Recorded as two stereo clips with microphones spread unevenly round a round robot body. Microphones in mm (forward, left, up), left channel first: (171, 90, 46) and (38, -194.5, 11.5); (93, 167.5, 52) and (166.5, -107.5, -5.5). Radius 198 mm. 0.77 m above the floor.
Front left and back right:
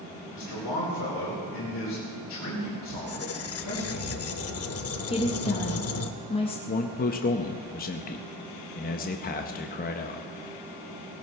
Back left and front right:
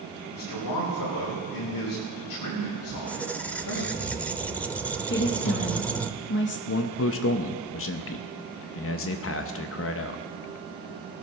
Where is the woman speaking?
135° left, 1.0 m.